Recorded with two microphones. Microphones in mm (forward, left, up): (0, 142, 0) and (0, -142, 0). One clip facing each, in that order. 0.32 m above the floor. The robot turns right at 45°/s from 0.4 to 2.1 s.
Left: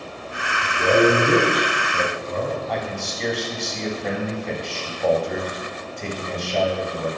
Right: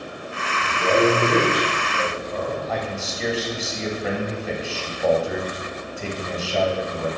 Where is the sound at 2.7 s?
5° right (ahead or behind), 1.7 m.